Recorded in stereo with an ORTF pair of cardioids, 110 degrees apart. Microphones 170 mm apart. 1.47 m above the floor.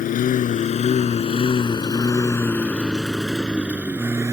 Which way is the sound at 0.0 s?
60° left.